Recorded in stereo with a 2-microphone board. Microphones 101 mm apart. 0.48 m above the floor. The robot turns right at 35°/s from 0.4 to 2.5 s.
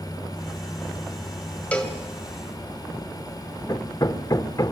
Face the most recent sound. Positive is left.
turn(degrees=40)  # may be behind; listen again after turning